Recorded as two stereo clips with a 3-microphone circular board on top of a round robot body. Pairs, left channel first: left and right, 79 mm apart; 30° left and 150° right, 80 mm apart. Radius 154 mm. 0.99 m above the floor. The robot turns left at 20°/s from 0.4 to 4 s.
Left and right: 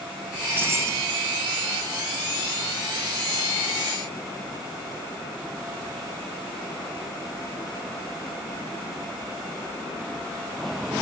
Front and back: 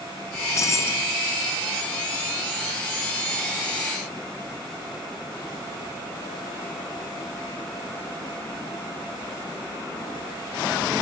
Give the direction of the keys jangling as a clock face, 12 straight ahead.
1 o'clock.